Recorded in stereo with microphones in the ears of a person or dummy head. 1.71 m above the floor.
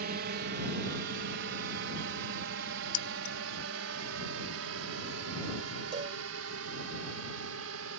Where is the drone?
50° right (ahead or behind); by 8.0 s 80° right.